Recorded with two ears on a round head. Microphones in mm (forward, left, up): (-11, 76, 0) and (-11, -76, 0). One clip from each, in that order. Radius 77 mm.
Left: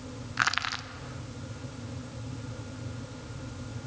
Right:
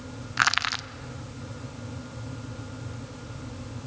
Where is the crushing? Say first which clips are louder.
Right 4 dB; 20° right (ahead or behind), 0.6 m.